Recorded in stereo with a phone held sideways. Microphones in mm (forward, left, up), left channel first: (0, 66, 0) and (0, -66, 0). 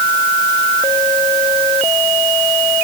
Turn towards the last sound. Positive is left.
No sound to turn to.